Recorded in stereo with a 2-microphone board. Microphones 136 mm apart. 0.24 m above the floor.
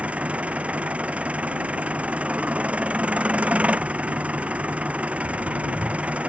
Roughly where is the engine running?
Centre.